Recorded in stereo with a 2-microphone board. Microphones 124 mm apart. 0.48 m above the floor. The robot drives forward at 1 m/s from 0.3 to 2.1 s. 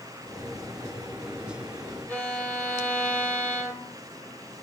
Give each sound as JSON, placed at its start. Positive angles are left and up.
{"t": 2.1, "sound": "a violin", "side_deg": 15, "distance_m": 2.0}